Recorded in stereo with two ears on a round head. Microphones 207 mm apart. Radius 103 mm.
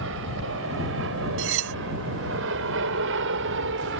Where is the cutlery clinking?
60° right (ahead or behind).